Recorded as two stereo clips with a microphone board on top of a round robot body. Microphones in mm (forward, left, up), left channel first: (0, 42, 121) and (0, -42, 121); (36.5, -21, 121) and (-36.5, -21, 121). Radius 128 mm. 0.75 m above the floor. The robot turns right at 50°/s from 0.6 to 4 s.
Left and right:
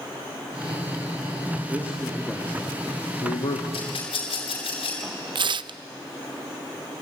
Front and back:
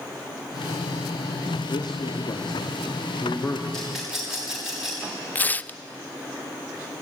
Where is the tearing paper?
70° right, 0.5 m.